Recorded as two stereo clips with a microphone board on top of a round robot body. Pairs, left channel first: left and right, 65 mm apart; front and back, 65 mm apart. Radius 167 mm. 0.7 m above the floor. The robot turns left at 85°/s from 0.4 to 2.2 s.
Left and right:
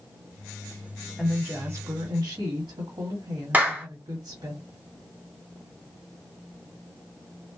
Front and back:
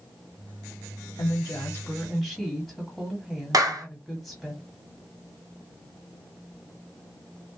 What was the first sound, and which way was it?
A woman speaking, straight ahead.